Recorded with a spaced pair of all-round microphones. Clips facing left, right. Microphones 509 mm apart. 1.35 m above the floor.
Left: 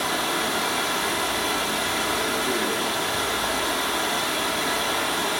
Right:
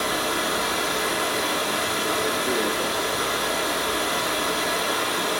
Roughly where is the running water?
Centre.